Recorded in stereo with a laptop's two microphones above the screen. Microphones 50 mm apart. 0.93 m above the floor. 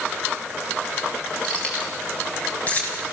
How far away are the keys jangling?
About 6.5 m.